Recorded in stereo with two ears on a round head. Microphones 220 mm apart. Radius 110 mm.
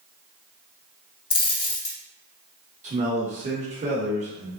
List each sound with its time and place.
1.3 s a dropped coin: 20° left (ahead or behind), 0.7 m
2.8 s a man speaking: 30° right (ahead or behind), 1.1 m